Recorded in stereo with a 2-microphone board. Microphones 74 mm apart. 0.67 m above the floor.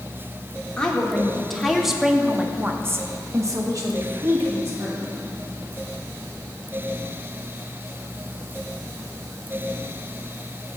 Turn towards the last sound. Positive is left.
turn(degrees=-45)  # may be behind; listen again after turning